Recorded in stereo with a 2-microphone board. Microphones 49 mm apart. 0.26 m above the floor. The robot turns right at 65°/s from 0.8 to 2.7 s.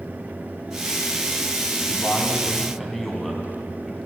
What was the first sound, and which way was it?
A man speaking, 120° left.